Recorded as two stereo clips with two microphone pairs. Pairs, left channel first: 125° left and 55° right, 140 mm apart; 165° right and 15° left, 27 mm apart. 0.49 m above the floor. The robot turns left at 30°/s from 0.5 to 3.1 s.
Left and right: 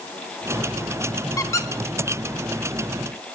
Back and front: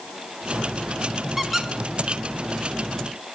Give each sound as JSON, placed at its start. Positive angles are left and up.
{"t": 1.4, "sound": "a squeak", "azimuth_deg": 85, "distance_m": 0.7}